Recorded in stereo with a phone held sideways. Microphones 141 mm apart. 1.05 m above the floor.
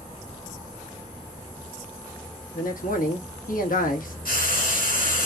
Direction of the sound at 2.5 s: 80° left.